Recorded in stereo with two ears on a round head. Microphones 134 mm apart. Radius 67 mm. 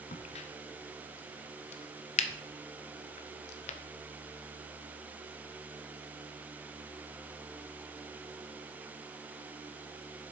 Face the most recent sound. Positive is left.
turn(degrees=45)  # may be behind; listen again after turning